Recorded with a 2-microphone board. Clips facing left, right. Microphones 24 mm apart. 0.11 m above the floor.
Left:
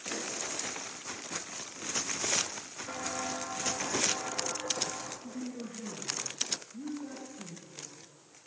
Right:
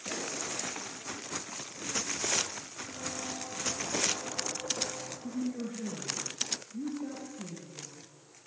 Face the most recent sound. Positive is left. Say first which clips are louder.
# right 5 dB
turn(degrees=-10)  # may be behind; listen again after turning